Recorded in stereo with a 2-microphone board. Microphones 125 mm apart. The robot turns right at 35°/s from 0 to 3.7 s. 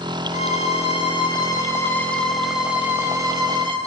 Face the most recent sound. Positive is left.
turn(degrees=-135)